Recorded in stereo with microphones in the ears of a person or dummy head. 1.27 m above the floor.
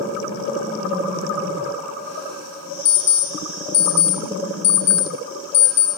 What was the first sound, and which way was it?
An alarm clock, 35° left (ahead or behind).